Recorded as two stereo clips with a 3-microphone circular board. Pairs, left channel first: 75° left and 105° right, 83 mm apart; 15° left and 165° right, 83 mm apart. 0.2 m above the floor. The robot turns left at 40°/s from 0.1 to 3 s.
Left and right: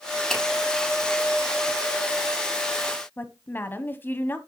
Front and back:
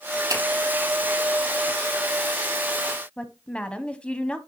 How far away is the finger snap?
About 7 m.